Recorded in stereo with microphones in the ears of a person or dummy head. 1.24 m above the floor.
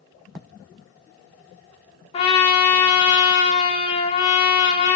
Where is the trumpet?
30° left (ahead or behind), 0.6 m.